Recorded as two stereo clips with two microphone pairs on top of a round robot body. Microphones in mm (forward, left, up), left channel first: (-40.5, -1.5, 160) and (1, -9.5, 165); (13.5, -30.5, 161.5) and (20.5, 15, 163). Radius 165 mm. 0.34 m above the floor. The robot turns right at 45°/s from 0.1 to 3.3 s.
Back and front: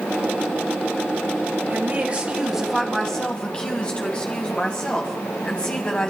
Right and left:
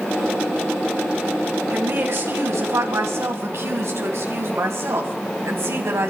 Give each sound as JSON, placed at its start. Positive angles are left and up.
{"t": 1.7, "sound": "a woman speaking", "azimuth_deg": 35, "distance_m": 3.5}